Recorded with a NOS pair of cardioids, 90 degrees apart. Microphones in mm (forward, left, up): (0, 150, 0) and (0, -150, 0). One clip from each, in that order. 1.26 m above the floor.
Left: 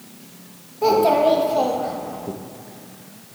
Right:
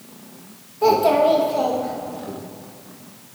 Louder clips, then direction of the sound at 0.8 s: Even; 10° right.